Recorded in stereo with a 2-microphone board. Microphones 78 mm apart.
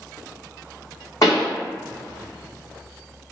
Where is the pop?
45° left (ahead or behind), 1.2 m.